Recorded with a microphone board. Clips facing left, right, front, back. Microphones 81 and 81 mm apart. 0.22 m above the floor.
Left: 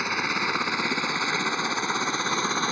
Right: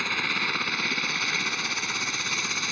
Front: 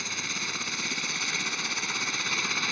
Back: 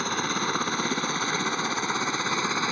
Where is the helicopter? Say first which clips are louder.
Left 3 dB, back 9 dB; 160° left; by 2.7 s 130° left.